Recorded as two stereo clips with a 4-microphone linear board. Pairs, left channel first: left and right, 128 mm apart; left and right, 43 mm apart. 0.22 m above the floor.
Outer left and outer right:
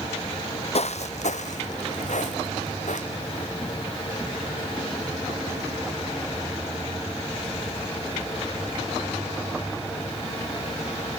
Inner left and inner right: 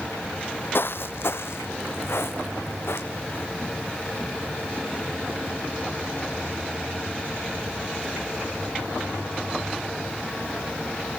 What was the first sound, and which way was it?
Footsteps, 60° left (ahead or behind).